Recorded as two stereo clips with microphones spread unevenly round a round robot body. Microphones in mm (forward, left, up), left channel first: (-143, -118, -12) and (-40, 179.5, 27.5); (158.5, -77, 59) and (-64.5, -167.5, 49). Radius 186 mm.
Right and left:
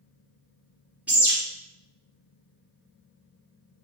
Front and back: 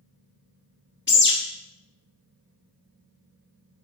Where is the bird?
20° right, 1.6 m.